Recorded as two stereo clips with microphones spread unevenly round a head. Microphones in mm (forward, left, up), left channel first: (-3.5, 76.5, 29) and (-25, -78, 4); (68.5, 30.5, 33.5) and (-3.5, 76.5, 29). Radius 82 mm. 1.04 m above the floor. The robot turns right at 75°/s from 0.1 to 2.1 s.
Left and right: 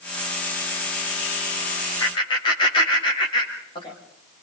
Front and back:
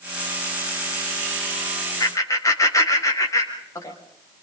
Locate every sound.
2.0 s laughter: 10° left, 6.5 m; by 4.0 s 20° left, 6.5 m